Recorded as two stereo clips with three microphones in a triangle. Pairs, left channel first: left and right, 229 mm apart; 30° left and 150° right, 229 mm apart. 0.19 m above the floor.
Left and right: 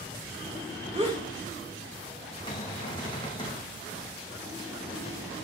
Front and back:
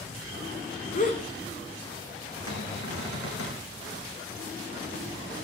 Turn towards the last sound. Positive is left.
turn(degrees=20)